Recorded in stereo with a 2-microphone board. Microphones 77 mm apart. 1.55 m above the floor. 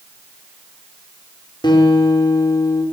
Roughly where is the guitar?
Left.